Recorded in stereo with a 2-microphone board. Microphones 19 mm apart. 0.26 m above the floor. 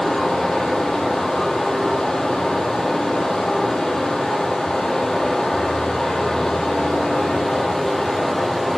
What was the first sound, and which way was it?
Running water, 50° left (ahead or behind).